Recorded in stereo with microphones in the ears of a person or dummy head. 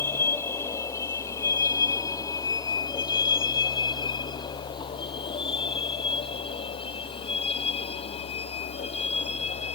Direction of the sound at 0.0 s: 15° left (ahead or behind).